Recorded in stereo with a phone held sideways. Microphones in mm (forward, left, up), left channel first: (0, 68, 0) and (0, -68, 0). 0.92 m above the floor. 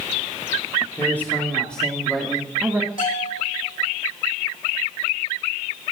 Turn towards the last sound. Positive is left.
turn(degrees=85)